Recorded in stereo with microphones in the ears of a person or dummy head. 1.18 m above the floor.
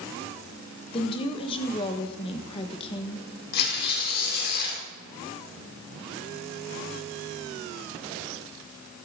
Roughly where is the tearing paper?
Left.